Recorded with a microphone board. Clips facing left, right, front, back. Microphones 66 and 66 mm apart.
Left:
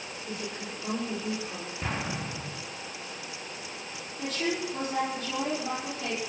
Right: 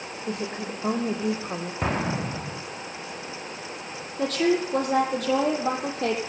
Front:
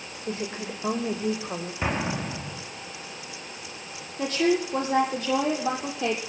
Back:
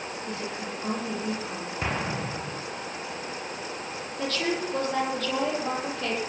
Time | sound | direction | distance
0.3 | a woman speaking | 60° right | 7 m
1.8 | an explosion | 80° right | 5.5 m
4.2 | a woman speaking | 70° right | 7 m